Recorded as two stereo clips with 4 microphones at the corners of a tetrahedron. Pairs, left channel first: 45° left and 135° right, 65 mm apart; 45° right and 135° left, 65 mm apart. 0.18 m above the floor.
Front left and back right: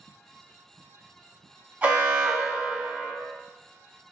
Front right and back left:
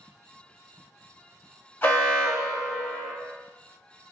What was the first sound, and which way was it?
An alarm, 90° right.